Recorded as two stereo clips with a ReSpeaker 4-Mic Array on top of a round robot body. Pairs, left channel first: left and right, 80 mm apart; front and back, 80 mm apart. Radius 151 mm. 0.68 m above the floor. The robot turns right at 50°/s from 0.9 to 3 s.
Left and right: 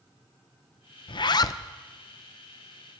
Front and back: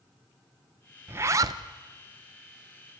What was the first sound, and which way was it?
A zipper, 115° left.